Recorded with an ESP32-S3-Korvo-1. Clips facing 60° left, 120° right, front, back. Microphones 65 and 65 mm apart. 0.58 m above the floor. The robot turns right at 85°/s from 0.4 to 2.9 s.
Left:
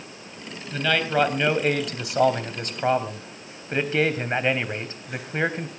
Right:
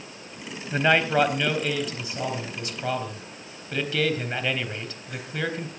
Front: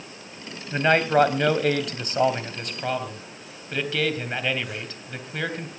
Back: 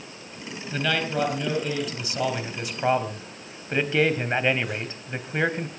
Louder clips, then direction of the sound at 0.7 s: Right 2 dB, front 7 dB; 70° right.